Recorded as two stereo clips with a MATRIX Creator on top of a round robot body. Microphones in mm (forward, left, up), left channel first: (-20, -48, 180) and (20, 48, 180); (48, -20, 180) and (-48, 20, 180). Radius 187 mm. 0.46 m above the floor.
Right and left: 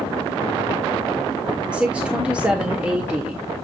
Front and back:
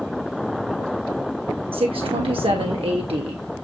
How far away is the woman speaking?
About 2 m.